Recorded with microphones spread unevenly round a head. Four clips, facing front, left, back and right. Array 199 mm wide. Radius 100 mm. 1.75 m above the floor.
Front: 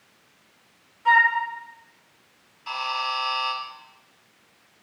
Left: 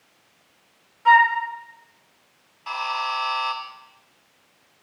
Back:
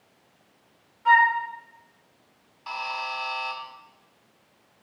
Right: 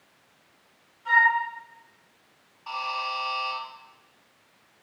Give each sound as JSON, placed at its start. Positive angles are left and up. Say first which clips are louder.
{"t": 1.1, "sound": "a flute", "louder": "left 7 dB, back 1 dB", "azimuth_deg": 90, "distance_m": 1.8}
{"t": 2.7, "sound": "a buzzer", "louder": "left 4 dB, front 4 dB", "azimuth_deg": 105, "distance_m": 1.7}